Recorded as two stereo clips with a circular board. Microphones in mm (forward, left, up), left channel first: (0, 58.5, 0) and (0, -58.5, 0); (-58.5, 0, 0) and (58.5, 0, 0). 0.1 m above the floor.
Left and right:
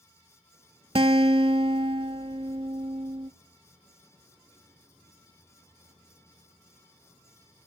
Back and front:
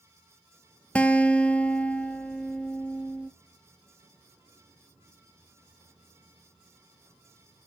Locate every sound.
0.9 s a guitar: 105° right, 0.5 m